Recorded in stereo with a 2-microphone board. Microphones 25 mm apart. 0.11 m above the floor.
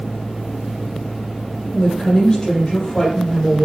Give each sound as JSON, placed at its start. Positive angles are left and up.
{"t": 1.7, "sound": "a woman speaking", "side_deg": 35, "distance_m": 3.5}